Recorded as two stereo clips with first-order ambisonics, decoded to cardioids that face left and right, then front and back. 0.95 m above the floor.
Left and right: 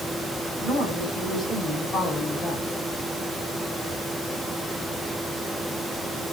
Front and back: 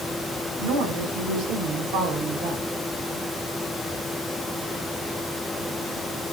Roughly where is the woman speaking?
Behind.